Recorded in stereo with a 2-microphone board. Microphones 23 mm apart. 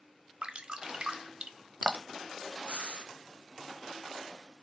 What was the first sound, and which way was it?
Dripping, 50° right (ahead or behind).